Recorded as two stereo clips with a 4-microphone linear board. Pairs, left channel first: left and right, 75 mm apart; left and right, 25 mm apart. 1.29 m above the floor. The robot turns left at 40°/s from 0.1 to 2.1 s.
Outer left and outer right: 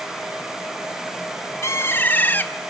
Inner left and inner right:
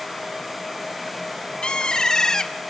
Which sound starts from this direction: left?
A bird, at 1.6 s.